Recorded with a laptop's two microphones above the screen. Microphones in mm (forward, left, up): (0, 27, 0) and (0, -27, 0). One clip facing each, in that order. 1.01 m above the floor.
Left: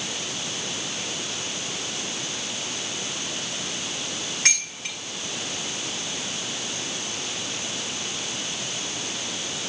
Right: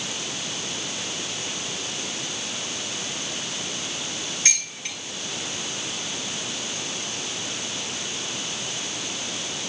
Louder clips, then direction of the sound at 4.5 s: Left 3 dB; 80° left.